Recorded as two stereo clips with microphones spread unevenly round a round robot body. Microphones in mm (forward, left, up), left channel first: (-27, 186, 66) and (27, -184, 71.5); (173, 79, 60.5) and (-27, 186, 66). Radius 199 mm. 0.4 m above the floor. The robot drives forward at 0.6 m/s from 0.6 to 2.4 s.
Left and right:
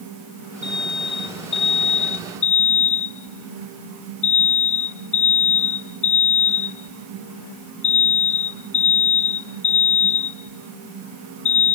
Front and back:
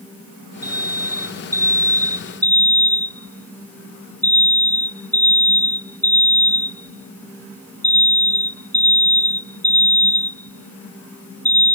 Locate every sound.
0.6 s an alarm: 45° left; by 11.8 s 55° left